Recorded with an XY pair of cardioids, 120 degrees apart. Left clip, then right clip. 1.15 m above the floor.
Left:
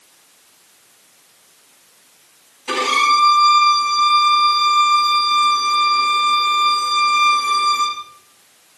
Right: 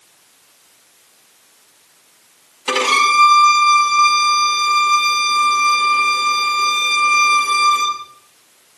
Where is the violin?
60° right, 6.5 m.